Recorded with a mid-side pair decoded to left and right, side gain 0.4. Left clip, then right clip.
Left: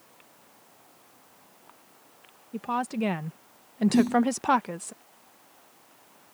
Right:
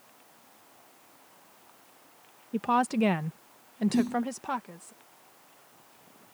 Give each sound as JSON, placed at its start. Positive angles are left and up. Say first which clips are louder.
{"t": 2.5, "sound": "a woman speaking", "louder": "right 4 dB", "azimuth_deg": -40}
{"t": 3.9, "sound": "a snare drum", "louder": "left 6 dB", "azimuth_deg": 30}